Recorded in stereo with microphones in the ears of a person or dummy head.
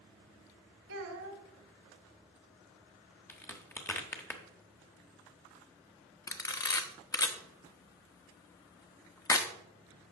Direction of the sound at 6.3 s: 15° left (ahead or behind).